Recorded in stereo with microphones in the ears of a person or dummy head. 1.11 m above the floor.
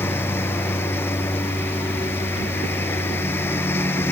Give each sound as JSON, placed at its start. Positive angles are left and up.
{"t": 0.0, "sound": "a lawn mower", "side_deg": 15}